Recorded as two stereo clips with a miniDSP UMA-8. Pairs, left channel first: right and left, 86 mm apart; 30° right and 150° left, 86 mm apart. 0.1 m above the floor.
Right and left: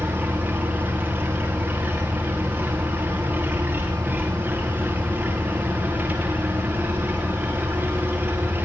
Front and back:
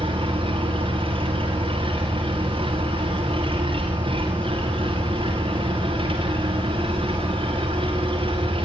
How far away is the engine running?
About 4.5 m.